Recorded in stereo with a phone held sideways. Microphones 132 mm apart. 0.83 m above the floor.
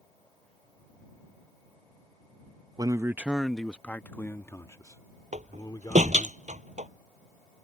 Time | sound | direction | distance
2.8 | a man speaking | 30° right (ahead or behind) | ?
5.3 | a door slam | 75° right (ahead or behind) | ?